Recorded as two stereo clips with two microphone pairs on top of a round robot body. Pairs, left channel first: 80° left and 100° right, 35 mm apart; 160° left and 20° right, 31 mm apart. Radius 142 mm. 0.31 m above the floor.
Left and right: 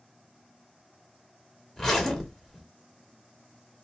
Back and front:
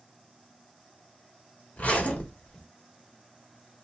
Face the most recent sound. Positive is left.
turn(degrees=150)